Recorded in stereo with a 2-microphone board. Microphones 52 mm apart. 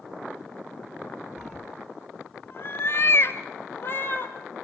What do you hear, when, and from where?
1.4 s a cat meowing: 5° left (ahead or behind), 1.1 m; by 4.3 s 45° left (ahead or behind), 2.5 m